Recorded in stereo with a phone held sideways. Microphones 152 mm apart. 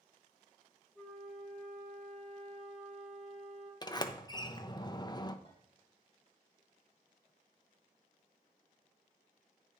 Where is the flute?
5° left (ahead or behind), 2.5 m.